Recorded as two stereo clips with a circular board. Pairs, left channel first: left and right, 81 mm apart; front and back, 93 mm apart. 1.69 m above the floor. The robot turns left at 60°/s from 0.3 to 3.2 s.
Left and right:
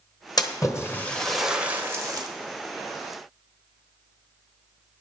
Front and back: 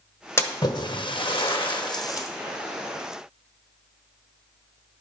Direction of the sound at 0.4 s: 60° left.